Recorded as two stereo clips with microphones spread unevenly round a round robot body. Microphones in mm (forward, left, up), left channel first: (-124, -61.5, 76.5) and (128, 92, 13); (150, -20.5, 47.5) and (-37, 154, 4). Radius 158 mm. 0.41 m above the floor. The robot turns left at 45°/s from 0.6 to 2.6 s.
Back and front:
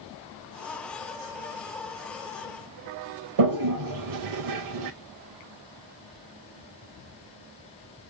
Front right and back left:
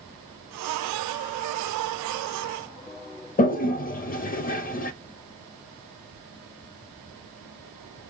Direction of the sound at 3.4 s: 20° left.